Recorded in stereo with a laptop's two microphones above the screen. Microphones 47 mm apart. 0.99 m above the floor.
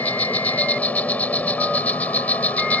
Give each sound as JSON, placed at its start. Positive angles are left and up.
{"t": 0.0, "sound": "an insect", "side_deg": 35}